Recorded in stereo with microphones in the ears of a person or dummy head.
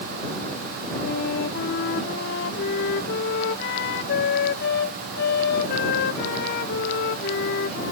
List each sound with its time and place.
1.0 s a flute: 65° left (ahead or behind)